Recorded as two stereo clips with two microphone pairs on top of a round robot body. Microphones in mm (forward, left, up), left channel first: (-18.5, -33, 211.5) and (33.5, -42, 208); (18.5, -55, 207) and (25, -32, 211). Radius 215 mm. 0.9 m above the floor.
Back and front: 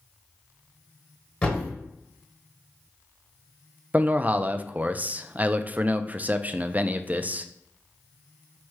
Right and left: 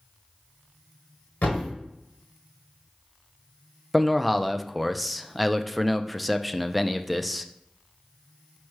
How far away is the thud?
About 0.8 m.